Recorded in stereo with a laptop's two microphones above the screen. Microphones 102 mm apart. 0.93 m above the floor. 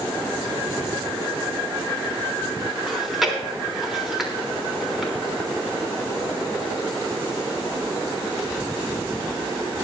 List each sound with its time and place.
2.9 s chewing: centre (ahead or behind), 3.5 m